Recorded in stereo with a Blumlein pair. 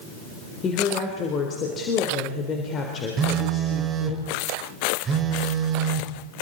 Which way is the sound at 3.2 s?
25° right.